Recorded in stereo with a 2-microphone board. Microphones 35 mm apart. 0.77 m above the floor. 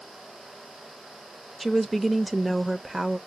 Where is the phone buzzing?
No phone buzzing in this recording.